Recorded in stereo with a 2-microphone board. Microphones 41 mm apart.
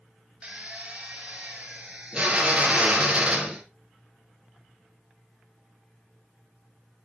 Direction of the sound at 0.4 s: 30° right (ahead or behind).